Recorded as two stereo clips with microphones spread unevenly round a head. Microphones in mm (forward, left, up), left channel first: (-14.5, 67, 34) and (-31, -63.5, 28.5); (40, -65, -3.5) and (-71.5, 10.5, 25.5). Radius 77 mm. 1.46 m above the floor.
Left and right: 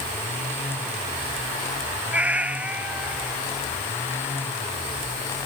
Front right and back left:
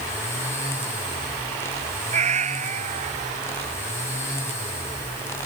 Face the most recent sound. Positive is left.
turn(degrees=180)